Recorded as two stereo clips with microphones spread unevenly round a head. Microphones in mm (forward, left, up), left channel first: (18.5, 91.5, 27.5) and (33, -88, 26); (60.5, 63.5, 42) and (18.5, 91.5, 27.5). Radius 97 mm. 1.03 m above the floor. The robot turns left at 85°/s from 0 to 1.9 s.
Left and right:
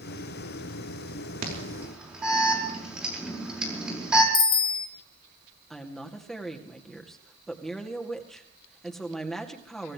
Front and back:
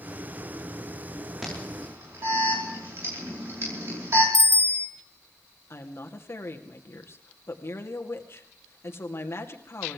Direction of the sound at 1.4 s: 130° right.